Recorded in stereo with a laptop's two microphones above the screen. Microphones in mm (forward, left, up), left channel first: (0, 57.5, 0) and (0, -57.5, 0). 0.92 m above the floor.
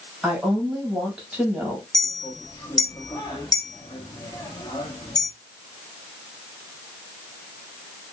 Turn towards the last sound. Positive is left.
turn(degrees=35)  # may be behind; listen again after turning